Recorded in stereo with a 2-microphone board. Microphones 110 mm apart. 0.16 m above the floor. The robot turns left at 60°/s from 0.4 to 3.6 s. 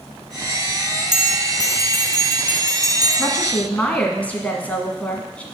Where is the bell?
70° left, 1.1 m; by 3.1 s 45° right, 1.1 m.